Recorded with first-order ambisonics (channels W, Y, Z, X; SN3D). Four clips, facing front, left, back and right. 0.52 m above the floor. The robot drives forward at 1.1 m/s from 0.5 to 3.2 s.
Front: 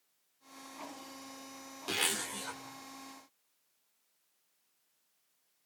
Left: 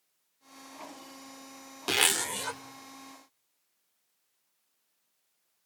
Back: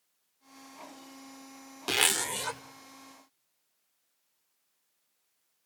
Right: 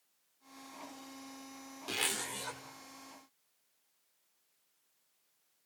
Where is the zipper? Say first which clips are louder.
Left 9 dB, back 7 dB; 125° left, 0.9 m; by 2.6 s 155° left, 1.5 m.